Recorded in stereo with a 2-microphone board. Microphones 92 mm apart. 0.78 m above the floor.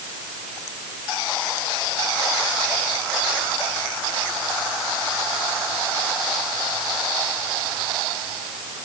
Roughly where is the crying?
I don't hear crying.